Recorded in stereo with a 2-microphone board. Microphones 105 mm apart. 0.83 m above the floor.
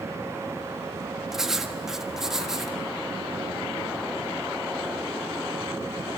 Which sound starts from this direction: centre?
Writing, at 1.3 s.